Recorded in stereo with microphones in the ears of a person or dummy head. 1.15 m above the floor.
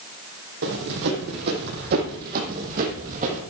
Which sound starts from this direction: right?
Running footsteps, at 0.6 s.